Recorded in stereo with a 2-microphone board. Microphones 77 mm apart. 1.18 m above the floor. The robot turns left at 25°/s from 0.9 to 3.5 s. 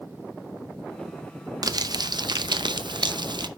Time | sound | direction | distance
1.6 | crumpling | 60° right | 0.6 m